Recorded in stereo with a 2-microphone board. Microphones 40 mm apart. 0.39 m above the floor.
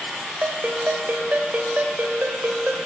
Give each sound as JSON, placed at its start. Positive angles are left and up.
{"t": 0.4, "sound": "a ringtone", "side_deg": -50, "distance_m": 1.0}